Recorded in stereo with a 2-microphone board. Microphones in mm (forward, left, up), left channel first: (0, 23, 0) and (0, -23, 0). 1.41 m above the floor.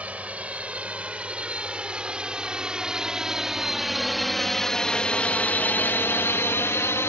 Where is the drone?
30° right (ahead or behind); by 7.1 s 80° left.